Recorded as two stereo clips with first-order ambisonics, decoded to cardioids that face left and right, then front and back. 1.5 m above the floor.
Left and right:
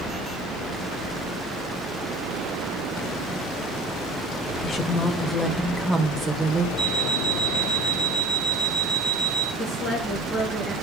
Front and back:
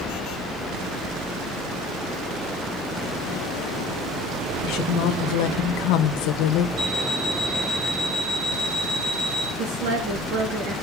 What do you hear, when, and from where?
4.6 s a woman speaking: 30° left, 1.3 m; by 6.7 s 15° right, 1.4 m
6.8 s an alarm clock: straight behind, 1.7 m
9.6 s a woman speaking: 160° left, 2.5 m